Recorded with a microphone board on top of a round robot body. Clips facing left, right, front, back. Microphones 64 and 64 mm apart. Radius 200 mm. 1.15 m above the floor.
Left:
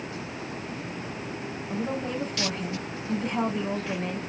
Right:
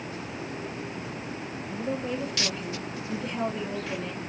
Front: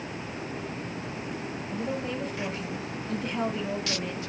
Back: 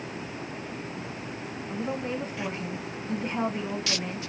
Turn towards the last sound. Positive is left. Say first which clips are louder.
# left 1 dB, back 1 dB
turn(degrees=120)